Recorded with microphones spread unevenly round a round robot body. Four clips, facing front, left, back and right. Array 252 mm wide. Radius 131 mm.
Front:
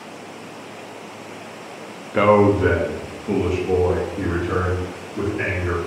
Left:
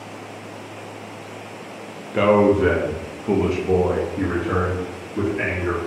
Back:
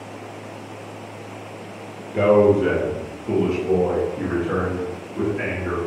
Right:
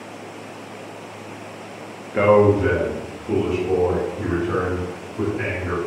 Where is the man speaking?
20° left, 0.7 m; by 5.8 s 85° left, 2.5 m.